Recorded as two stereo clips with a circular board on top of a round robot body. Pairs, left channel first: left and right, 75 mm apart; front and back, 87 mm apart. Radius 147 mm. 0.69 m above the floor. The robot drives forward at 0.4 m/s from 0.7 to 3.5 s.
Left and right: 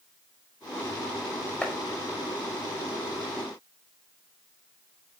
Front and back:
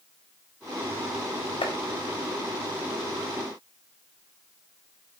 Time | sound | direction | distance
1.6 | chopping | 15° left | 5 m